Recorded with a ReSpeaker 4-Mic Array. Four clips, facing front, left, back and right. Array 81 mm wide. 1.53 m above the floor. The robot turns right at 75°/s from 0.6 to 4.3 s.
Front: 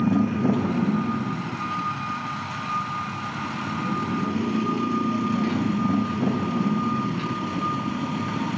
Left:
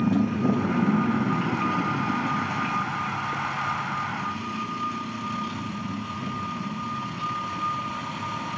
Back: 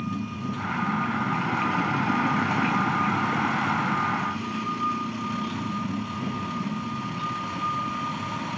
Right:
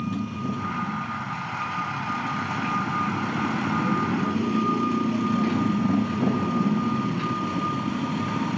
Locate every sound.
0.0 s a motorcycle: 35° left; by 8.6 s 55° right